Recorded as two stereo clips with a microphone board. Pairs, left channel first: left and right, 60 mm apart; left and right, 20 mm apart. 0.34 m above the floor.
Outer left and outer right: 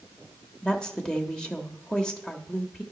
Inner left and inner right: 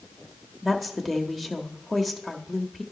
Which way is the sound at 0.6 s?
10° left (ahead or behind).